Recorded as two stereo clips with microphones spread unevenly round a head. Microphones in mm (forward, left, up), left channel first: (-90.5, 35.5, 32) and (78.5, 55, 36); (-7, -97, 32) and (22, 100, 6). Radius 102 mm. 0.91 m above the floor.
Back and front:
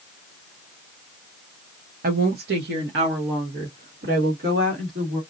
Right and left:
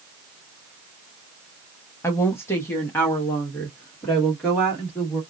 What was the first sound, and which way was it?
A woman speaking, 20° right.